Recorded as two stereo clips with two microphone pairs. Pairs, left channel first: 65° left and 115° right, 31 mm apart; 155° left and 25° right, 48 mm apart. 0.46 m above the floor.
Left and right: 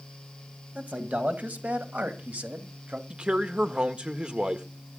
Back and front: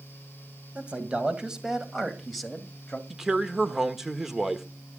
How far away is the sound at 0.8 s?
About 2 m.